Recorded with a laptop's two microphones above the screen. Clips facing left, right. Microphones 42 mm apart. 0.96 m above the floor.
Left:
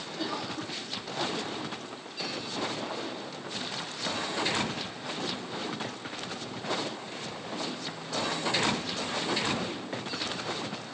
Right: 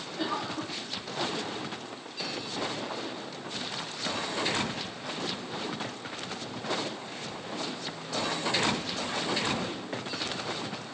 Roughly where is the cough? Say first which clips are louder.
Right 3 dB; right.